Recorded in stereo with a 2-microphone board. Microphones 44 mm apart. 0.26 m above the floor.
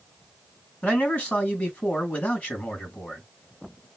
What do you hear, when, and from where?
0.8 s a man speaking: 30° left (ahead or behind), 2 m